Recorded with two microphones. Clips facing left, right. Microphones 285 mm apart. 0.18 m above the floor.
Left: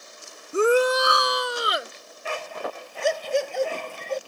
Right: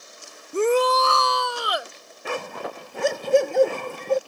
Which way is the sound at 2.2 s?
65° right (ahead or behind).